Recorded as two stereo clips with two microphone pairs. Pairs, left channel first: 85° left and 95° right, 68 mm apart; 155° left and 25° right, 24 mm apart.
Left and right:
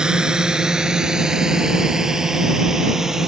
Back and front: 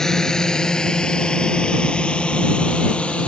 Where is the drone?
160° right; by 3.3 s 175° right.